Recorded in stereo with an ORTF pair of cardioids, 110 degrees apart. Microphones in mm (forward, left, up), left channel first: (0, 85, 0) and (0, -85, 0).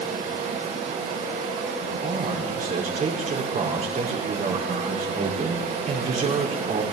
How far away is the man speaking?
About 4.5 m.